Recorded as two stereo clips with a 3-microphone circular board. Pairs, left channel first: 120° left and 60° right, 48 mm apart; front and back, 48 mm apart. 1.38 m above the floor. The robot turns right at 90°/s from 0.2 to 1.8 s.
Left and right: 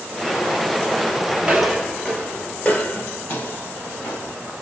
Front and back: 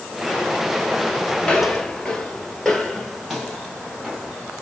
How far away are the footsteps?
About 1.4 m.